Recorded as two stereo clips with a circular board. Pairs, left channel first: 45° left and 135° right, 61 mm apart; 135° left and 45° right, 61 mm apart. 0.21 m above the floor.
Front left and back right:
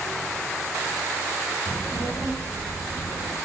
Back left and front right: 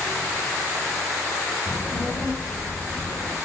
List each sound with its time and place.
1.7 s a child speaking: 65° left, 1.8 m; by 3.4 s 85° left, 2.5 m